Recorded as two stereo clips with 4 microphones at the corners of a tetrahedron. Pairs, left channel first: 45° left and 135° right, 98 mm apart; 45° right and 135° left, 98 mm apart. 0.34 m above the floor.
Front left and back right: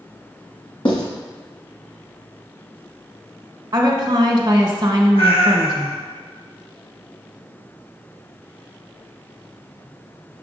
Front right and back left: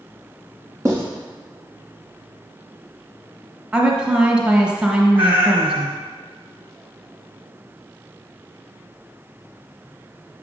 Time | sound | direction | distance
0.8 | writing | 80° left | 2 m
3.7 | a woman speaking | 150° right | 1.2 m
5.2 | a cat meowing | 65° left | 1.6 m